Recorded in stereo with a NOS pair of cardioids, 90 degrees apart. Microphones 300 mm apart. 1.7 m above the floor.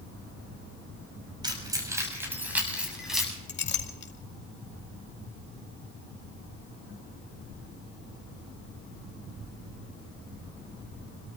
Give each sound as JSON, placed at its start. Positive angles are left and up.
{"t": 1.4, "sound": "keys jangling", "azimuth_deg": -15, "distance_m": 6.0}
{"t": 3.5, "sound": "a clink", "azimuth_deg": 40, "distance_m": 2.5}